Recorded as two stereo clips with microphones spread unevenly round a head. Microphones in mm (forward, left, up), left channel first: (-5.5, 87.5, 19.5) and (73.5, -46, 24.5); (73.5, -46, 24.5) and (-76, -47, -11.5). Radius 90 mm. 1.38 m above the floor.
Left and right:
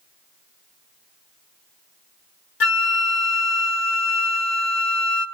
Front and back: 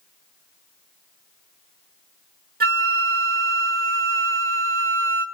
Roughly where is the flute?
Behind left.